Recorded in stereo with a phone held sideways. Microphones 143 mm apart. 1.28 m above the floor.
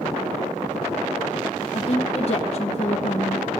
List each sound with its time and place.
1.7 s a woman speaking: 45° left (ahead or behind), 1.1 m